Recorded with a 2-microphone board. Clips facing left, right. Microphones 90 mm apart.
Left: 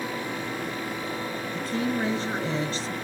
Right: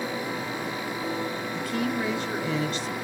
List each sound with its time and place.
1.5 s a woman speaking: 30° left (ahead or behind), 1.8 m